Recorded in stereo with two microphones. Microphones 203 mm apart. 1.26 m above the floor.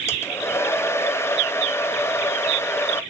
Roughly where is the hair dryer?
Centre.